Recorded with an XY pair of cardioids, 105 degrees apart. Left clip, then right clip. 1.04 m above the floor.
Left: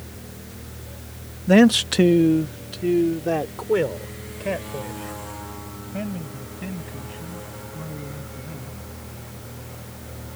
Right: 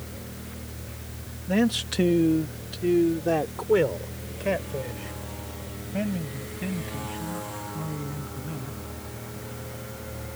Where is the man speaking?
70° left; by 8.8 s 15° right.